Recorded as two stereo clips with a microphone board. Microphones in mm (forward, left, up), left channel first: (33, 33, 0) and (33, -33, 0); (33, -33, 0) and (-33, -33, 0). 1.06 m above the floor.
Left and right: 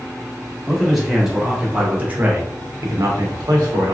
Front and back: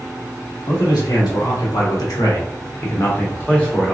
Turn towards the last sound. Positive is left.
turn(degrees=-85)